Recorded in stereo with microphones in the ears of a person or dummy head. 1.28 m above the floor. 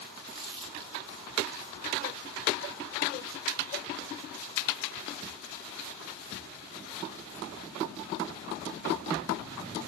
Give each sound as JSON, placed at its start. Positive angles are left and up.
{"t": 0.3, "sound": "crumpling", "side_deg": -35, "distance_m": 3.5}